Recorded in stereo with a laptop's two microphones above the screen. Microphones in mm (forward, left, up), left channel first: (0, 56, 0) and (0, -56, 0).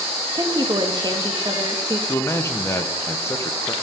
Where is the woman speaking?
35° right (ahead or behind), 1.3 m.